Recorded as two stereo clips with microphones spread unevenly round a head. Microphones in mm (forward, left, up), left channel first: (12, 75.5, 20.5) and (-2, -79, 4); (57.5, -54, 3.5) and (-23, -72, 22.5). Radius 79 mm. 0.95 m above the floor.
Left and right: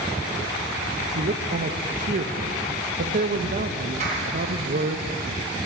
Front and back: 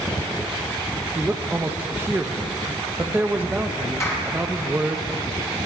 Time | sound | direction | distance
1.1 | a man speaking | 90° right | 0.9 m
4.0 | a clap | 45° right | 4 m